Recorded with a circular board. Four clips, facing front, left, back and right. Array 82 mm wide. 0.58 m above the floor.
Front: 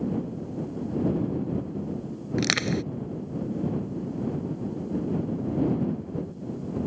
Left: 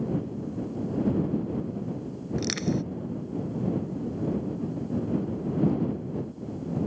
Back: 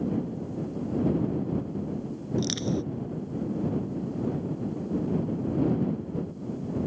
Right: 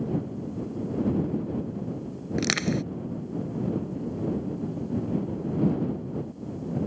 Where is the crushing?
35° right.